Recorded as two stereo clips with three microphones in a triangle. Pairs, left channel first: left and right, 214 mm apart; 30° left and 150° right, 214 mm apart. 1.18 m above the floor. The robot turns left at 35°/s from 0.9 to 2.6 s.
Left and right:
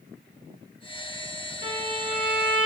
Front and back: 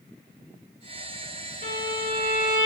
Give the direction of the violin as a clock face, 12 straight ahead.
10 o'clock.